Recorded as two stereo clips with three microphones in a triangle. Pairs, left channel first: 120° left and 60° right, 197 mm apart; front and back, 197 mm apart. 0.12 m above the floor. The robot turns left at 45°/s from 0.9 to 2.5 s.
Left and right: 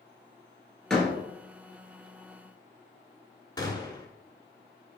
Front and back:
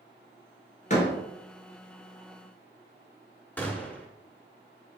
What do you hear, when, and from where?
0.9 s a door slam: 35° left, 1.3 m; by 1.2 s 20° left, 1.3 m
3.6 s a gunshot: 75° left, 0.7 m